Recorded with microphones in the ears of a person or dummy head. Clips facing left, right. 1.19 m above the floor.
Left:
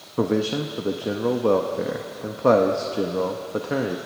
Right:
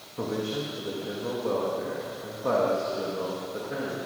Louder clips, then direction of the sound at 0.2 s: Left 8 dB; 75° left (ahead or behind).